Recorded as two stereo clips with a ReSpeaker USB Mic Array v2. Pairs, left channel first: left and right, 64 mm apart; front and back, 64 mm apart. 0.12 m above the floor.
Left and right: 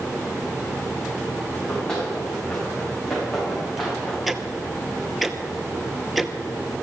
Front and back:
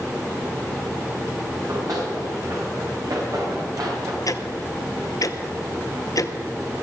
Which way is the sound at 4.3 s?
Straight ahead.